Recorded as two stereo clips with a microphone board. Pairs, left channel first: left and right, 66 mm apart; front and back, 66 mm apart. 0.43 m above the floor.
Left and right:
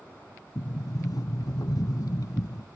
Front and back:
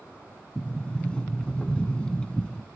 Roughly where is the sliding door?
Left.